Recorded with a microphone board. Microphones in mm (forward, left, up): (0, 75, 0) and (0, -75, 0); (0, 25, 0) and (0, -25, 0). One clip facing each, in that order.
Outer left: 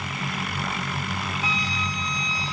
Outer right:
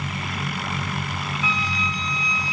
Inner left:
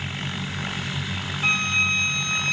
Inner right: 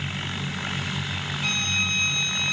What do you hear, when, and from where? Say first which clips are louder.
1.4 s a flute: outer right 2 dB, inner left 6 dB; 35° left (ahead or behind), 1.1 m